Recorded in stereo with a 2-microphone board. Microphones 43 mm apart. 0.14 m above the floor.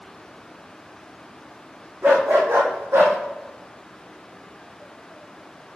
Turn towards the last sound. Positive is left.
turn(degrees=-65)  # may be behind; listen again after turning